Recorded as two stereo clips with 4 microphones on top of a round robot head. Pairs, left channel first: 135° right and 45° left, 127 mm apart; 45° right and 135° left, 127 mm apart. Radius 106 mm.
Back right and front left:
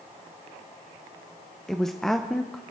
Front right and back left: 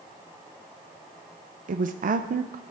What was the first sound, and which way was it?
A woman speaking, 140° left.